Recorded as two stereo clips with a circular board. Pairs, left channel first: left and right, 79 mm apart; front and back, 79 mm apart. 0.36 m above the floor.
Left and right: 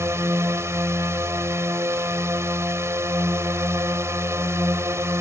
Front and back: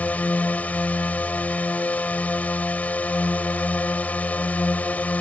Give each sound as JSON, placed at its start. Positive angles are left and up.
{"t": 0.0, "sound": "a drone", "azimuth_deg": -60}